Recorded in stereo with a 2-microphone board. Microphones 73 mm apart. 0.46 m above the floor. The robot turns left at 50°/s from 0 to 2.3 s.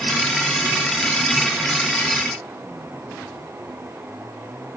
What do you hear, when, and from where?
Only background noise.